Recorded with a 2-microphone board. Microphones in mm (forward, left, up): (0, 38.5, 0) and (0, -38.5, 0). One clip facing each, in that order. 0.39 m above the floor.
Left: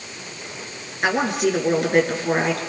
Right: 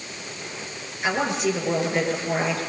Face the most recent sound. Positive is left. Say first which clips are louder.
# left 3 dB
turn(degrees=55)  # may be behind; listen again after turning